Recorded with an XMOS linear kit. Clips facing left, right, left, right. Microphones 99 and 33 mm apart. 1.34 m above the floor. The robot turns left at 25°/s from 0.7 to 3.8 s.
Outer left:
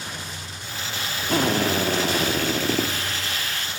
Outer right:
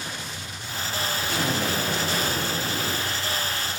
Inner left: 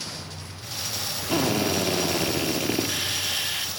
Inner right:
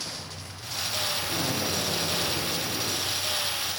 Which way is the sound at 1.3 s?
125° left.